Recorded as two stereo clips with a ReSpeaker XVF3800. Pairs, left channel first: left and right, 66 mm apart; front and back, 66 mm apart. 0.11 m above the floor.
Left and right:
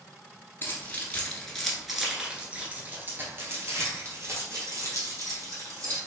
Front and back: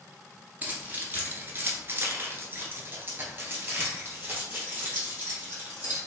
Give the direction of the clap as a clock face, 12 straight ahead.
I don't hear a clap.